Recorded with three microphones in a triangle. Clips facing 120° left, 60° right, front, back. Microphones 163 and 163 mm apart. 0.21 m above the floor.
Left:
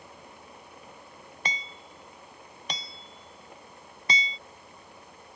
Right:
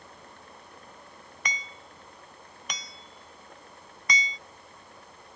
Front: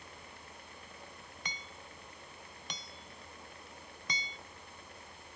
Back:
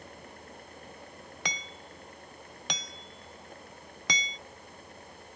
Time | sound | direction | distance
1.4 | hammering | straight behind | ?